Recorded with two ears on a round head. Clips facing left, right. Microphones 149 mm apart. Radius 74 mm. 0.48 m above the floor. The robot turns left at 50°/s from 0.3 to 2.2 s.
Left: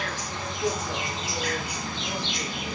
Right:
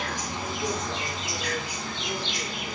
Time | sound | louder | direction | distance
0.0 | an insect | right 1 dB | 165° right | 0.9 m